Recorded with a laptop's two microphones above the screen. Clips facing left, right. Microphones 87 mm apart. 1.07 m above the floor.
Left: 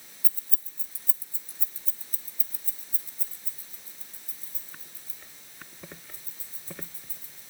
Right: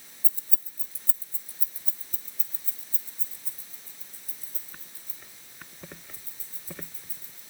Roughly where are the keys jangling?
Right.